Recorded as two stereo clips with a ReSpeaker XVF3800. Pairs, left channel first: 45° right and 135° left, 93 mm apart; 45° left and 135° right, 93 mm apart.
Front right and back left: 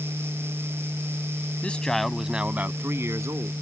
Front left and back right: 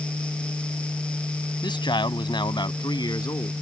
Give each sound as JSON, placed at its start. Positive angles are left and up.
{"t": 1.6, "sound": "a man speaking", "azimuth_deg": 30}